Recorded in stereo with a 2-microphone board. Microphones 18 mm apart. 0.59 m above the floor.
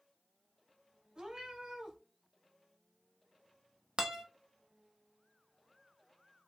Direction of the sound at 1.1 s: 65° right (ahead or behind).